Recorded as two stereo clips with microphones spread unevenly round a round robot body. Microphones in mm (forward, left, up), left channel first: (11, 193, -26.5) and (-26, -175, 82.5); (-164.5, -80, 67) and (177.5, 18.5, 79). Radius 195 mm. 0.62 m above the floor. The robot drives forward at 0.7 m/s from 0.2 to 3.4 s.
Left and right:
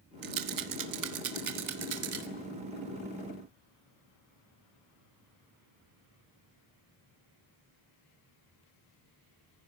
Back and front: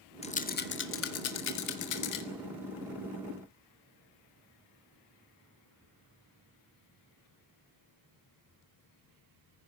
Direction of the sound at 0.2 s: 105° right.